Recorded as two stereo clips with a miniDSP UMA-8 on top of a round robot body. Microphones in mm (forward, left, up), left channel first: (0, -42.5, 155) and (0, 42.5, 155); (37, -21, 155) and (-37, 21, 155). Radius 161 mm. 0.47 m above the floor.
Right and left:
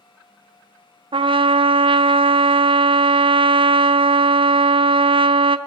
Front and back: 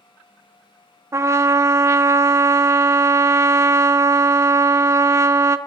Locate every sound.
1.1 s a trumpet: 95° left, 0.7 m